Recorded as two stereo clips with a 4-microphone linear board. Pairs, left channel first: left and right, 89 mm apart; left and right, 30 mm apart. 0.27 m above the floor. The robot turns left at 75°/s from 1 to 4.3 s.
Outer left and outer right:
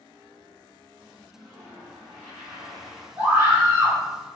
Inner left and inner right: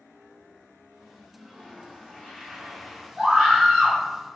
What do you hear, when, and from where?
1.3 s a toilet flushing: 135° left, 1.6 m; by 3.1 s 5° left, 1.6 m
3.2 s a scream: 30° right (ahead or behind), 1.5 m; by 4.0 s 15° right (ahead or behind), 1.5 m